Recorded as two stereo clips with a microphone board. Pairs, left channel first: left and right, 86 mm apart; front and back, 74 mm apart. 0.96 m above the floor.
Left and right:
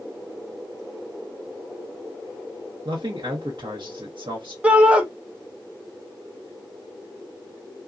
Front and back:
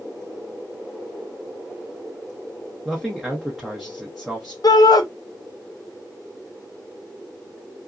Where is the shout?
15° right, 0.6 m.